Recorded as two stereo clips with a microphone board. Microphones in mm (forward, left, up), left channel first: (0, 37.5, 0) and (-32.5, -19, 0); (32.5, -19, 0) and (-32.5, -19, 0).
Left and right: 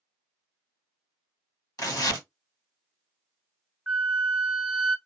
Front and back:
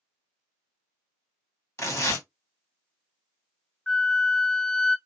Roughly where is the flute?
Ahead right.